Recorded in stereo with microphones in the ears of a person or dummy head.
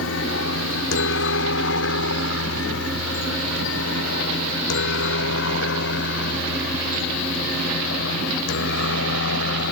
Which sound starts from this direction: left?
A helicopter, at 0.0 s.